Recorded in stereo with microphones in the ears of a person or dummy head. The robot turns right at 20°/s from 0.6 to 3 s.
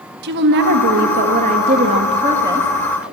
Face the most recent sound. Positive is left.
turn(degrees=-10)